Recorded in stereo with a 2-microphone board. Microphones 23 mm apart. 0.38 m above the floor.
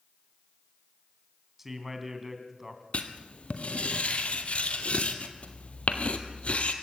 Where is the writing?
75° left (ahead or behind), 1.6 m.